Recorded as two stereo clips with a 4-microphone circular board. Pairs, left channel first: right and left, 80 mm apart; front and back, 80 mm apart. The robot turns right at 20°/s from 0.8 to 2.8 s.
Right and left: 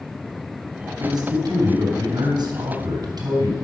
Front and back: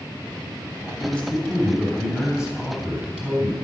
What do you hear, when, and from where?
1.0 s a man speaking: 75° left, 3.5 m; by 3.5 s 110° left, 3.5 m